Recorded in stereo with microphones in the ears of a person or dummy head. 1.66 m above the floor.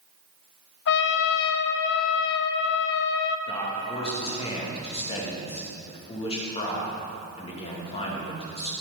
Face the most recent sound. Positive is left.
turn(degrees=30)  # may be behind; listen again after turning